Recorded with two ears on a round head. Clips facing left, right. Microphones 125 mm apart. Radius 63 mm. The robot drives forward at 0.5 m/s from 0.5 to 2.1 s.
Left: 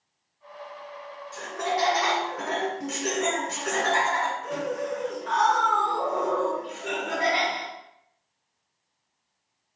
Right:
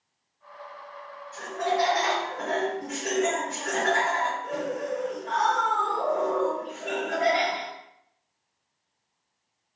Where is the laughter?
55° left (ahead or behind), 1.7 m; by 7.7 s 65° left (ahead or behind), 1.5 m.